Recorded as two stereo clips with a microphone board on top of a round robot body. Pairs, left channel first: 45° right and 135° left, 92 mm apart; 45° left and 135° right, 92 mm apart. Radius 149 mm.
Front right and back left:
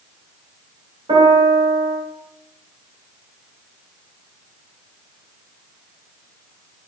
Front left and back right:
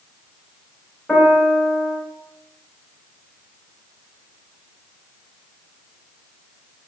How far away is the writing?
I don't hear writing.